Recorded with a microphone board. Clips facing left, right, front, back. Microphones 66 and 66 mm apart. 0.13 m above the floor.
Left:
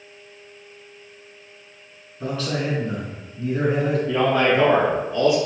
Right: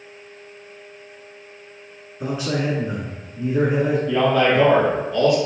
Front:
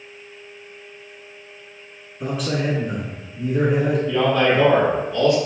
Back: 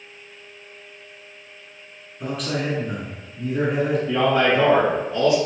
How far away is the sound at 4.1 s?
About 1.6 m.